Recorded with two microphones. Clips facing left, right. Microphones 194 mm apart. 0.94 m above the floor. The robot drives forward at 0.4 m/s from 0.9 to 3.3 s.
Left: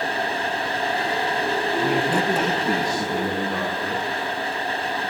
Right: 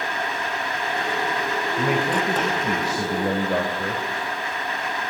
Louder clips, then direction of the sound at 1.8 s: Even; 80° right.